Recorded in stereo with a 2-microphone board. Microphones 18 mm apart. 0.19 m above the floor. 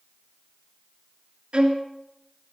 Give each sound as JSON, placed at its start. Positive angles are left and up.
{"t": 1.5, "sound": "a violin", "side_deg": -55, "distance_m": 1.6}